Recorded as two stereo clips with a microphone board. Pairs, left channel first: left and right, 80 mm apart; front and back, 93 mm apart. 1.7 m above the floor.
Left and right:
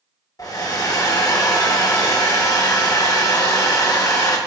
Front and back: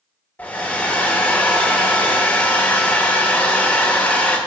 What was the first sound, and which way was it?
A hair dryer, 70° left.